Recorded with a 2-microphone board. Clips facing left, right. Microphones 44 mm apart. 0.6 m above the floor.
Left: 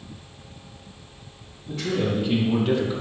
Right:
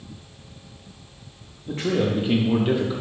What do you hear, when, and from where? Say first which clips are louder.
1.7 s a man speaking: right 2 dB; 40° right (ahead or behind), 0.9 m; by 3.0 s 5° right (ahead or behind), 0.9 m